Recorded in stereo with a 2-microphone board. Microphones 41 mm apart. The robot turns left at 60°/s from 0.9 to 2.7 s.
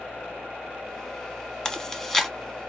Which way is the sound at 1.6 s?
20° left (ahead or behind).